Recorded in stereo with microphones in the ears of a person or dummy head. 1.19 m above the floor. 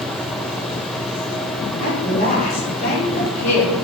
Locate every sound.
1.8 s a woman speaking: 50° left (ahead or behind), 3.5 m